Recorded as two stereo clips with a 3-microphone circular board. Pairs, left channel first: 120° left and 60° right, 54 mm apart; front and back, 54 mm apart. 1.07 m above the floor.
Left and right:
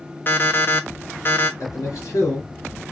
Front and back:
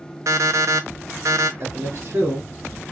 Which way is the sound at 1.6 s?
140° left.